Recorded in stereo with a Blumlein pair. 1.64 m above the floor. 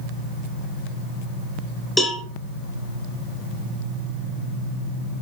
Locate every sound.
2.0 s a cowbell: straight ahead, 2.5 m